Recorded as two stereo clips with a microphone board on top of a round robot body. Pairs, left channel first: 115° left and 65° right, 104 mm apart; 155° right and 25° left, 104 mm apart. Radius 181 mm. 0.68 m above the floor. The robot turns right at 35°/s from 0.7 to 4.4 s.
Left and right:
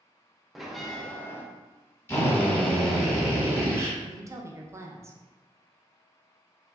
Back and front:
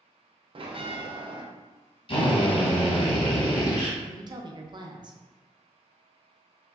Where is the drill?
175° left, 1.4 m; by 3.9 s 120° right, 1.4 m.